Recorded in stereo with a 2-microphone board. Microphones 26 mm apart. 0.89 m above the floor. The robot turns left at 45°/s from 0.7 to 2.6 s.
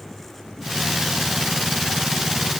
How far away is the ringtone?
I don't hear a ringtone.